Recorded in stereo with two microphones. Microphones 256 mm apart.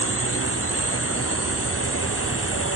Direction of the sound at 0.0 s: 60° left (ahead or behind).